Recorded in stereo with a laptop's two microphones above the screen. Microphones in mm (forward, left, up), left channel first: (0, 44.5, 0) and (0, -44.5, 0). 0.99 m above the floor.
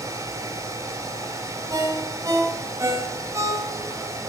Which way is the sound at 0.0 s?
35° right (ahead or behind).